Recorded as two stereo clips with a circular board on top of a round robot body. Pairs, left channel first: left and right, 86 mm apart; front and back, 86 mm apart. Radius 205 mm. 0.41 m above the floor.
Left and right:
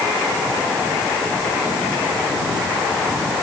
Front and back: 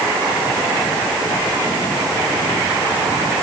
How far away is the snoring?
No snoring in this recording.